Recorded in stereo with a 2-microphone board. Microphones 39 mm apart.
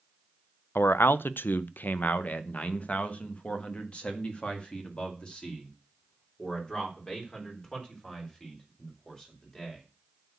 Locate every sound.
0.8 s a man speaking: 80° left, 0.6 m; by 9.8 s 20° left (ahead or behind), 5 m